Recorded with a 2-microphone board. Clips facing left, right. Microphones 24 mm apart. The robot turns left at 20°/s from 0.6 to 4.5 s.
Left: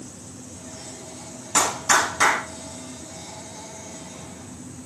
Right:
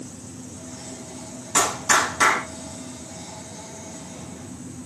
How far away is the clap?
About 5 m.